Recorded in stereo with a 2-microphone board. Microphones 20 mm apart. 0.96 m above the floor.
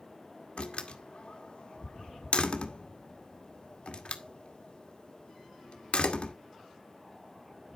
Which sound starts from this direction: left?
A door slam, at 0.6 s.